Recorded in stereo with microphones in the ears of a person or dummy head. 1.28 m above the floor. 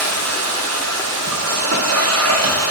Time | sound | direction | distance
0.0 | a machine running | 75° right (ahead or behind) | 0.7 m